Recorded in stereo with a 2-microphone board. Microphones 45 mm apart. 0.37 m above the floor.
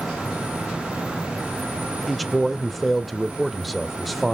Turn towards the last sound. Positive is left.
turn(degrees=0)  # may be behind; listen again after turning